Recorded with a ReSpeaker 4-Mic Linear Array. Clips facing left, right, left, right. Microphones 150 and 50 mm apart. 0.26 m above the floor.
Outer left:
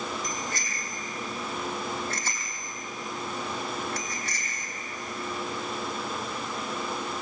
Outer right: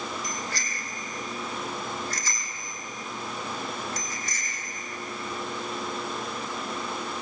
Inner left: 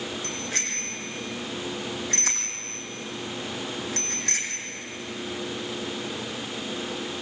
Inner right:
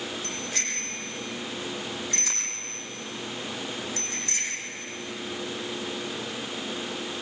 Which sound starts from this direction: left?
A bicycle bell, at 0.2 s.